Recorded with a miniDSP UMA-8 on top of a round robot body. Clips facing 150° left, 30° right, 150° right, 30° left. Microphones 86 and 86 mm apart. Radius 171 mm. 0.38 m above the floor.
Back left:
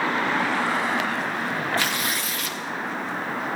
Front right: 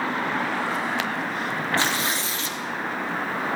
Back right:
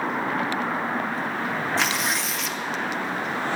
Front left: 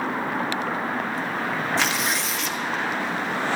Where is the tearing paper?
60° right, 1.6 m.